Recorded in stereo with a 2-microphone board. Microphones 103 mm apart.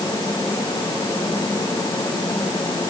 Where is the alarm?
No alarm in this recording.